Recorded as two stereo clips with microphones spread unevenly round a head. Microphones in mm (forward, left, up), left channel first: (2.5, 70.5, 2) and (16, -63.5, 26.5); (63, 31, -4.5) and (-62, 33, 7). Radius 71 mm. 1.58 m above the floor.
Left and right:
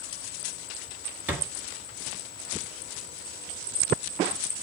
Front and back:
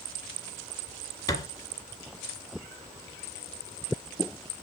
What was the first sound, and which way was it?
A thud, 40° right.